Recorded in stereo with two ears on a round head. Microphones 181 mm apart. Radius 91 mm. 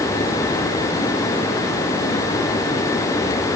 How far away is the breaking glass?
No breaking glass in this recording.